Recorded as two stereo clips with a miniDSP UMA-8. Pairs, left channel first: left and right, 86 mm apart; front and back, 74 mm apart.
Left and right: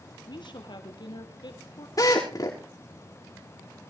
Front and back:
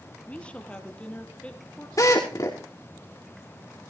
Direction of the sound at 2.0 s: 45° left.